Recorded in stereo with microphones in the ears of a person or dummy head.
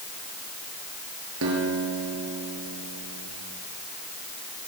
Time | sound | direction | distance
1.4 | a guitar | 75° right (ahead or behind) | 7 m